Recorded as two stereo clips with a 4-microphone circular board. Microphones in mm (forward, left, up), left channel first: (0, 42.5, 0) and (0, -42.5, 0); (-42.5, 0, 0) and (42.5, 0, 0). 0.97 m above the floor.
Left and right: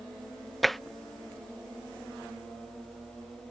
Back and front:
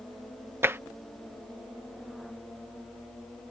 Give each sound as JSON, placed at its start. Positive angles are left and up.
{"t": 0.6, "sound": "tapping", "azimuth_deg": 0}